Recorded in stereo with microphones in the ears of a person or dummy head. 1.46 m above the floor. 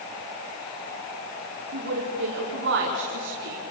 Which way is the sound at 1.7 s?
70° right (ahead or behind).